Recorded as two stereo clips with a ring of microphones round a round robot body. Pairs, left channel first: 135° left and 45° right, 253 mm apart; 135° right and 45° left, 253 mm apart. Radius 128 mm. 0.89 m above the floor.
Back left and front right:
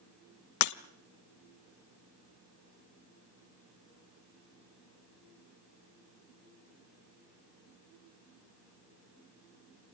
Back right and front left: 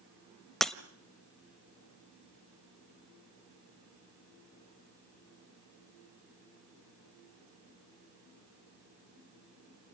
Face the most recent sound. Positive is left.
turn(degrees=135)